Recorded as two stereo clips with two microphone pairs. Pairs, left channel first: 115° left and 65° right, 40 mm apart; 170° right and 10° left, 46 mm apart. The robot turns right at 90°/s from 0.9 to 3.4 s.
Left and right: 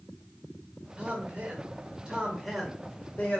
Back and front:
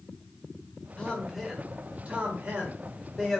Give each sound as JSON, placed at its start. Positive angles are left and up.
{"t": 1.0, "sound": "a man speaking", "azimuth_deg": -115, "distance_m": 1.6}